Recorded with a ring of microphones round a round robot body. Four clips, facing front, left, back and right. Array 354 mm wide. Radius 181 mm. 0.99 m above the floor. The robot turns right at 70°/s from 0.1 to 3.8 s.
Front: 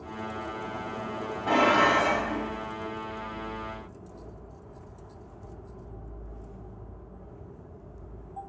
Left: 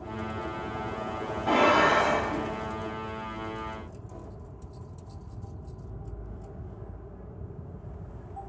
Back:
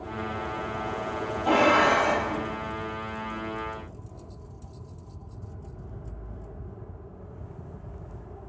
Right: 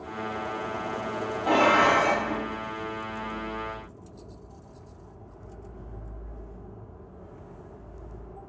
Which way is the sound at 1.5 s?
150° right.